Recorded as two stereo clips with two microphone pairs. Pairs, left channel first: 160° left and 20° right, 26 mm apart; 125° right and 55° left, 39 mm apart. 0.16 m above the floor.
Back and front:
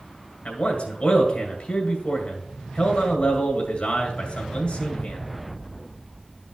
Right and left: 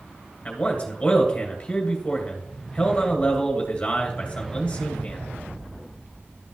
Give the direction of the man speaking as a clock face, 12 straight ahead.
6 o'clock.